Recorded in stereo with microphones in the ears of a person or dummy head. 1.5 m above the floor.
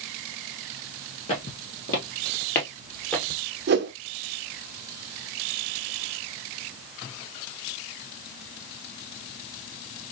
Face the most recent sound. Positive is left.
turn(degrees=-50)  # may be behind; listen again after turning